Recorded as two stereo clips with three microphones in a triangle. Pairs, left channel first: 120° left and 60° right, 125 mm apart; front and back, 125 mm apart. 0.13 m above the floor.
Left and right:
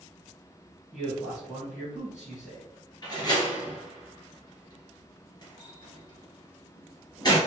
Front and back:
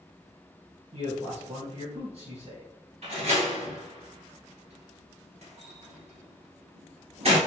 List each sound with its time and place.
0.9 s a man speaking: 170° right, 1.9 m
3.0 s a door slam: 170° left, 1.7 m